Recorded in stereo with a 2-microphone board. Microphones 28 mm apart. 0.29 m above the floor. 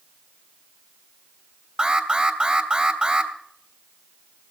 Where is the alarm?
45° right (ahead or behind), 3 m.